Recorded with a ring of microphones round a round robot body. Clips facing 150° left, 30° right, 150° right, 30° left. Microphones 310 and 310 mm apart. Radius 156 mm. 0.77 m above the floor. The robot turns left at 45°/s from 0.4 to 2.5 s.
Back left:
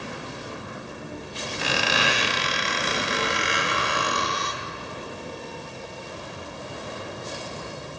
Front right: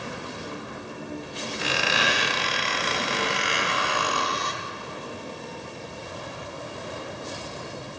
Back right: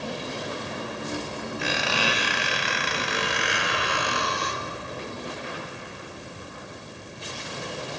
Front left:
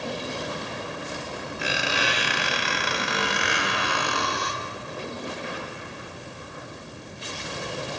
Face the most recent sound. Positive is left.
turn(degrees=70)